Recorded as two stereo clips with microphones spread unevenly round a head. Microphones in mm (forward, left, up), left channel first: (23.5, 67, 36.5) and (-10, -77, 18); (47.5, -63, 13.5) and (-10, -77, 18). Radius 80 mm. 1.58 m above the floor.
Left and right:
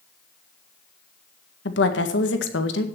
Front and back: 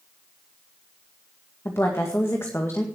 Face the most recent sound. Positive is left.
turn(degrees=90)